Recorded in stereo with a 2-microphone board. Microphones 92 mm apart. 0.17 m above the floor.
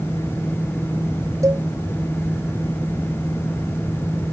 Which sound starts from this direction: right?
A cowbell, at 1.4 s.